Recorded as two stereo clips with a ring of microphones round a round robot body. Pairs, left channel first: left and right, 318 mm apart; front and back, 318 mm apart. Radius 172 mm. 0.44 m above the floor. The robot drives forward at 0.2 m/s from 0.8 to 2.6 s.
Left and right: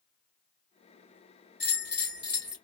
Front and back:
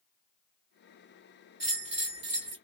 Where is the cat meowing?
I don't hear a cat meowing.